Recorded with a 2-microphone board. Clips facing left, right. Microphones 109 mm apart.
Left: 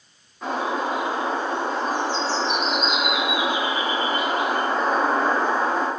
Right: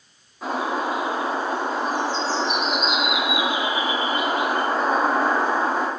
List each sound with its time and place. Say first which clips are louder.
0.4 s a bird: even; 5° right (ahead or behind), 4 m